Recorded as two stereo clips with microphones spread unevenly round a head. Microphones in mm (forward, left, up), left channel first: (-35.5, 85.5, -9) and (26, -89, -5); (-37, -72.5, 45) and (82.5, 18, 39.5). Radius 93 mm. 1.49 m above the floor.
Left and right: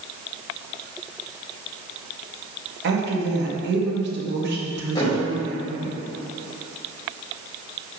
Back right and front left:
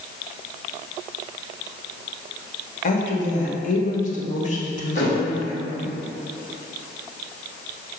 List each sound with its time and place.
2.8 s a woman speaking: 105° right, 1.8 m
5.0 s a thud: straight behind, 2.5 m